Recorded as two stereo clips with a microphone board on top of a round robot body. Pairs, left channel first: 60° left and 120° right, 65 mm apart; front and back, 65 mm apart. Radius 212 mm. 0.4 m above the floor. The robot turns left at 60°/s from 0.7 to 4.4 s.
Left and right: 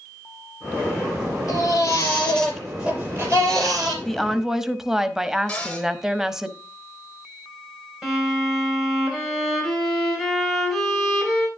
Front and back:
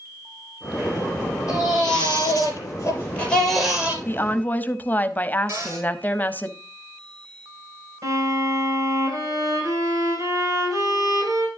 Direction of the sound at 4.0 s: 20° right.